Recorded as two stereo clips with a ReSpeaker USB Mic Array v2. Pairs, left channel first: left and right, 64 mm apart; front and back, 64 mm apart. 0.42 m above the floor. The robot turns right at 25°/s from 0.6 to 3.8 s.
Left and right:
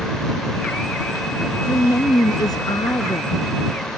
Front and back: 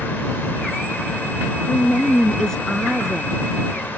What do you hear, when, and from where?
1.6 s a woman speaking: 60° left; by 3.4 s 105° left